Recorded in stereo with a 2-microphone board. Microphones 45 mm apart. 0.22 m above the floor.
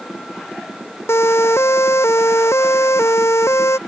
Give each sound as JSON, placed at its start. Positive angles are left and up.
{"t": 1.1, "sound": "a siren", "side_deg": 70}